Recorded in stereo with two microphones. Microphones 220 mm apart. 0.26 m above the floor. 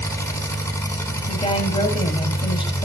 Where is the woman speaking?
20° left (ahead or behind), 1.1 m.